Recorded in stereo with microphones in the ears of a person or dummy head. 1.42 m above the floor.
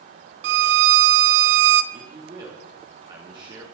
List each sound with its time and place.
0.4 s a violin: 65° right (ahead or behind), 0.6 m
1.9 s a man speaking: 25° right (ahead or behind), 3 m